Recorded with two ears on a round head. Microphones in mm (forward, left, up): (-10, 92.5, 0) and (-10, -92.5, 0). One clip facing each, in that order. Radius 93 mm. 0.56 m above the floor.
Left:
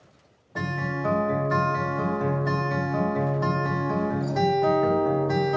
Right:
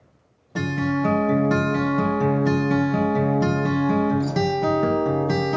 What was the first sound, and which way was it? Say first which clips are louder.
A guitar: right 8 dB; 40° right (ahead or behind).